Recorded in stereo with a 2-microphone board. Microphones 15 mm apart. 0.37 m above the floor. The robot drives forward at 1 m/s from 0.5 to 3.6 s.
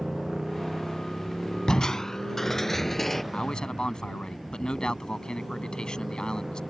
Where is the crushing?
50° left (ahead or behind); by 3.2 s 15° left (ahead or behind).